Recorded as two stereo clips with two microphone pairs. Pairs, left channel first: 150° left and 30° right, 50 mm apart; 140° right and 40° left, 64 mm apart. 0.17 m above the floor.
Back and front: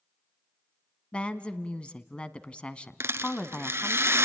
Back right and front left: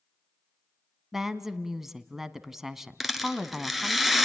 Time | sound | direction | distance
1.1 | a woman speaking | 115° left | 1.0 m
3.0 | a rattle | 45° right | 1.2 m